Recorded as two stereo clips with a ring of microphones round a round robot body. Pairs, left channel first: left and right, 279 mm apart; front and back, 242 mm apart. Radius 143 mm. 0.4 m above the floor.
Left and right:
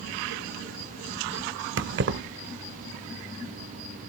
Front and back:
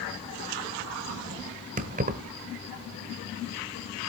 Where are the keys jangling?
130° right, 0.9 m.